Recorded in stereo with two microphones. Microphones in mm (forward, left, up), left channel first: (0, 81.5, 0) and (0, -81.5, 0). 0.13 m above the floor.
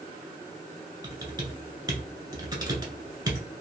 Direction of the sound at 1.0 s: 25° right (ahead or behind).